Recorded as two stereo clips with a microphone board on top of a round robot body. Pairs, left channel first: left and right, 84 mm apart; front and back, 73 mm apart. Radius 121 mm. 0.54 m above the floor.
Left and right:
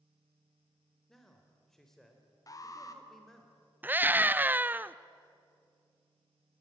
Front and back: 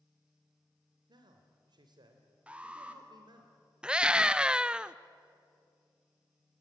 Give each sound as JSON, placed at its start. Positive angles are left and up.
{"t": 1.1, "sound": "a man speaking", "azimuth_deg": 175, "distance_m": 2.5}
{"t": 2.5, "sound": "an alarm", "azimuth_deg": 110, "distance_m": 2.0}
{"t": 3.8, "sound": "a scream", "azimuth_deg": -120, "distance_m": 0.7}